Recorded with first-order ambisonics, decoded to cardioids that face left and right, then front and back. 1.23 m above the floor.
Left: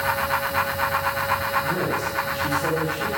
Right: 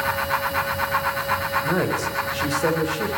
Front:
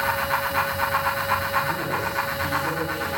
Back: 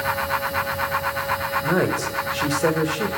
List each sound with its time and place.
1.6 s a woman speaking: 155° right, 4 m